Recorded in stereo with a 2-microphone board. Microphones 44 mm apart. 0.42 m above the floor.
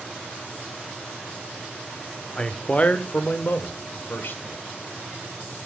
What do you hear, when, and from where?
2.4 s a man speaking: 20° left (ahead or behind), 0.8 m; by 4.6 s 60° left (ahead or behind), 1.8 m